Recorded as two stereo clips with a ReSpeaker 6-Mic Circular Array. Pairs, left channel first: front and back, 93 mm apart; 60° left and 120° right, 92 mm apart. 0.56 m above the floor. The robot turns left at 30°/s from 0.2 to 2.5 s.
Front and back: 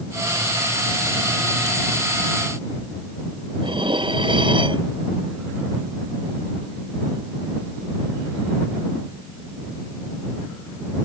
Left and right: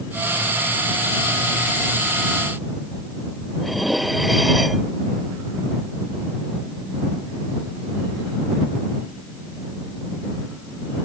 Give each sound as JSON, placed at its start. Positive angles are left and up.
{"t": 3.6, "sound": "dishes clattering", "azimuth_deg": 150}